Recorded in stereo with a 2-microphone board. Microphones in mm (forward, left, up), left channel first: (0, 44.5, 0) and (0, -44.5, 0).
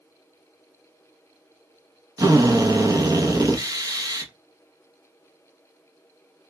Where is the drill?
40° right (ahead or behind), 0.9 m.